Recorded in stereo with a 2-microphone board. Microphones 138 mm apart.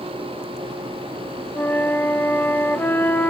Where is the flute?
15° left (ahead or behind), 1.2 m.